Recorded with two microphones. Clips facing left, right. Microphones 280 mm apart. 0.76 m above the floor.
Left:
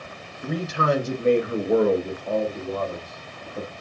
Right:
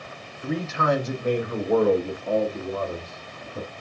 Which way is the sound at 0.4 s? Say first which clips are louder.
Even; 50° left (ahead or behind).